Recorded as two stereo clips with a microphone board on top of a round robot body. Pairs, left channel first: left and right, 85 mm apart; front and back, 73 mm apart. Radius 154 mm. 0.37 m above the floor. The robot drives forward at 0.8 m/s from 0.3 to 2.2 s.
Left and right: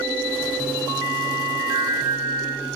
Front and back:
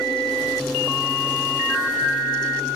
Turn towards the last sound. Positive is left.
turn(degrees=-110)